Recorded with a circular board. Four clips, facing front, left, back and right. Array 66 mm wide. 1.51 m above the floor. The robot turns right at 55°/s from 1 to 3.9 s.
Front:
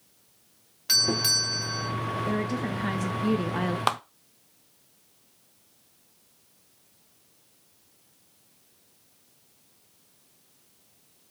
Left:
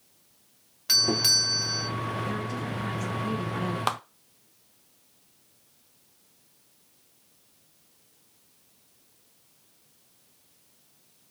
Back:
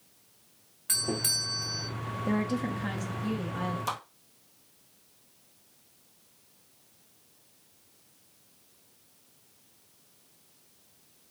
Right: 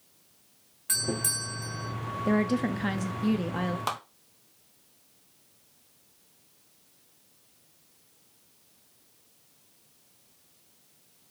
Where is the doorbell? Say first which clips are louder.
Left 4 dB, front 5 dB; 55° left, 0.6 m; by 1.9 s 100° left, 0.6 m.